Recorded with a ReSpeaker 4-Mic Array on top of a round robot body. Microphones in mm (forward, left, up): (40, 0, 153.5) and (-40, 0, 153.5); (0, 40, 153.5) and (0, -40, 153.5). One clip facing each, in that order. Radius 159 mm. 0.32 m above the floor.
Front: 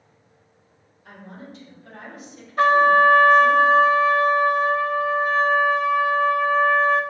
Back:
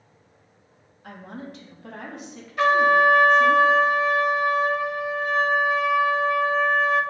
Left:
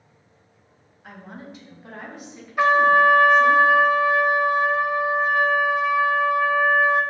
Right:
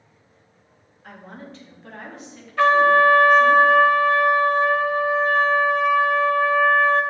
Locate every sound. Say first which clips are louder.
1.0 s a woman speaking: back 3 dB, even; 170° left, 3 m; by 3.6 s 160° left, 5 m
2.6 s a trumpet: front 3 dB, right 1 dB; 20° left, 1.5 m